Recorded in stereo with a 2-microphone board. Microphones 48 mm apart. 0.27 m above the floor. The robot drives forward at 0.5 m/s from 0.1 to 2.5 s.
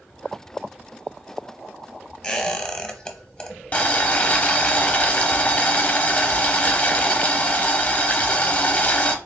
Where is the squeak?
15° left (ahead or behind), 0.9 m; by 4.7 s 20° left (ahead or behind), 0.8 m.